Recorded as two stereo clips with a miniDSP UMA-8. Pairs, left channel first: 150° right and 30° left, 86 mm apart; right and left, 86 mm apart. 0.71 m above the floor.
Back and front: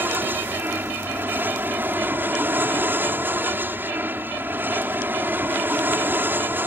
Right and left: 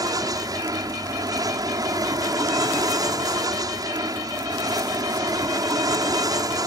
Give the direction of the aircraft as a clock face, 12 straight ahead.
9 o'clock.